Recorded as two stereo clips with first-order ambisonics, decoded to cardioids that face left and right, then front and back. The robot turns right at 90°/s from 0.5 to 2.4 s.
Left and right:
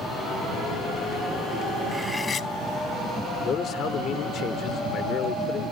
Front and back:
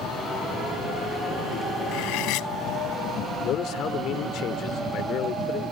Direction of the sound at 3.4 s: 40° left.